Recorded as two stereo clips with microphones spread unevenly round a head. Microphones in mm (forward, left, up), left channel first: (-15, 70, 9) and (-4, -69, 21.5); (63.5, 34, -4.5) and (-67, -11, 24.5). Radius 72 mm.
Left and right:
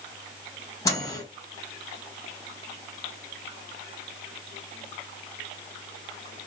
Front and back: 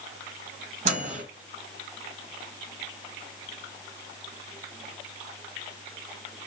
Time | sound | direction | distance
0.8 | a microwave | 160° left | 1.2 m